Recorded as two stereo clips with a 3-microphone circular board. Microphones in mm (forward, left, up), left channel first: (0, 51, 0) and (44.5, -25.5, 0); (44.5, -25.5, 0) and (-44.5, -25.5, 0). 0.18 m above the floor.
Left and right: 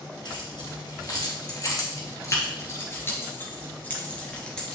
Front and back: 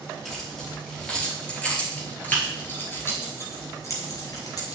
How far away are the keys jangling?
About 3 m.